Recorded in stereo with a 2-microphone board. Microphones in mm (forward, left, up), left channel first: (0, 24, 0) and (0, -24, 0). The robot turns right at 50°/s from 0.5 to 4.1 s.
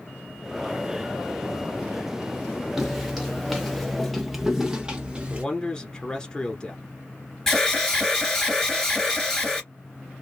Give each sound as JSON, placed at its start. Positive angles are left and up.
{"t": 2.8, "sound": "footsteps", "side_deg": -10, "distance_m": 0.9}
{"t": 5.3, "sound": "a man speaking", "side_deg": 20, "distance_m": 1.1}
{"t": 7.5, "sound": "an alarm", "side_deg": 10, "distance_m": 2.5}